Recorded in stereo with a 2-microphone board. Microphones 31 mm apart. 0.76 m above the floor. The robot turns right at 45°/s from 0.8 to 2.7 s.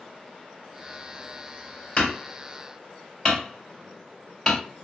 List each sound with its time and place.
2.0 s hammering: 50° left (ahead or behind), 2.5 m; by 4.6 s 15° left (ahead or behind), 2.5 m